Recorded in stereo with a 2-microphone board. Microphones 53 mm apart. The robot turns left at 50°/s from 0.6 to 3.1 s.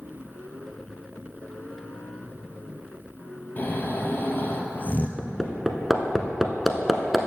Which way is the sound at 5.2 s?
5° right (ahead or behind).